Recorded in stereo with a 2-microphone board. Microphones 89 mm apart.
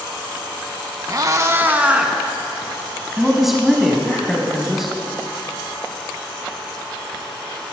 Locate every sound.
1.1 s a cat meowing: 45° right (ahead or behind), 0.7 m; by 4.2 s 10° left (ahead or behind), 2.5 m
3.2 s a man speaking: centre (ahead or behind), 1.1 m